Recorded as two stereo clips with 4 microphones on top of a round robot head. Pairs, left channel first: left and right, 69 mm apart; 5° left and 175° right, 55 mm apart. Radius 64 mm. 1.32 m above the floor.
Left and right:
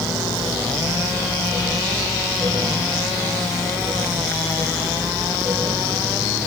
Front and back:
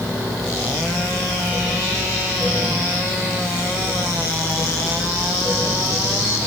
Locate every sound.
Only background noise.